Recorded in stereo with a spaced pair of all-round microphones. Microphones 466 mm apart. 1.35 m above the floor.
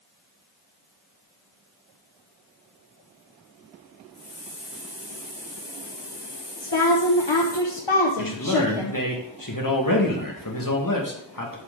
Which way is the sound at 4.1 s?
55° left (ahead or behind).